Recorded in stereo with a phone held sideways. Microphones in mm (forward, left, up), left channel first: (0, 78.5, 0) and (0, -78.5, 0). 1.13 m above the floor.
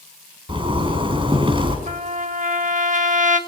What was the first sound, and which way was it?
A zipper, 35° right (ahead or behind).